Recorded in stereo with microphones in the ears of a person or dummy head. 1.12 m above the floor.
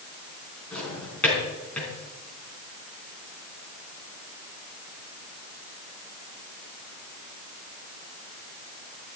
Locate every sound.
0.7 s a drawer: 15° left (ahead or behind), 4.5 m